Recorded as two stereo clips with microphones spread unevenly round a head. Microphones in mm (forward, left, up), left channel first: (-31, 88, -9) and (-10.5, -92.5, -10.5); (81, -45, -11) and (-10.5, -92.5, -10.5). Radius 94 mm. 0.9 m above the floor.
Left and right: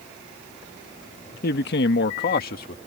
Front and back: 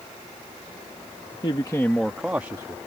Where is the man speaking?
70° left; by 2.8 s 135° left.